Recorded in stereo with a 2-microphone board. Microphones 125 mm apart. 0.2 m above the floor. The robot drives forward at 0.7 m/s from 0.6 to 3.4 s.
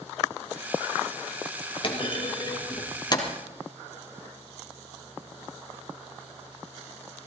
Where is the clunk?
45° left (ahead or behind), 2.5 m; by 3.3 s 35° left (ahead or behind), 3.5 m.